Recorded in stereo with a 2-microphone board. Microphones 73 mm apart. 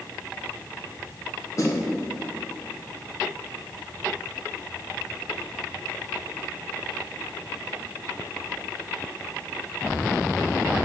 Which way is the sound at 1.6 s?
45° left (ahead or behind).